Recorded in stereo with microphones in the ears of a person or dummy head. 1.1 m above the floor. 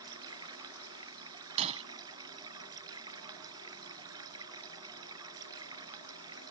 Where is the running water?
25° right (ahead or behind).